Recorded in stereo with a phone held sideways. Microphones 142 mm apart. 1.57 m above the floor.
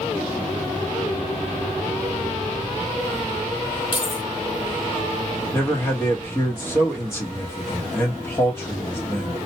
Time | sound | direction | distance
3.9 | keys jangling | 35° left (ahead or behind) | 0.9 m
5.5 | a man speaking | 15° left (ahead or behind) | 1.1 m